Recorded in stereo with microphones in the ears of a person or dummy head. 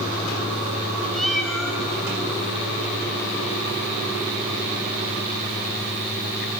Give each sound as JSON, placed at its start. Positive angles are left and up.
{"t": 1.1, "sound": "a cat meowing", "side_deg": 0, "distance_m": 2.0}